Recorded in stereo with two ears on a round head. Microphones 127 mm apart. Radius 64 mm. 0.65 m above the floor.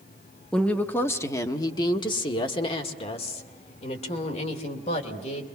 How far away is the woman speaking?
About 1.1 m.